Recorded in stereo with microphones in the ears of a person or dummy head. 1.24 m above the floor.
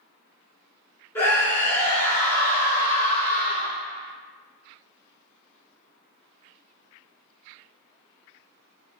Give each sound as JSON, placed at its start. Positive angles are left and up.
{"t": 1.1, "sound": "a scream", "side_deg": 15, "distance_m": 1.4}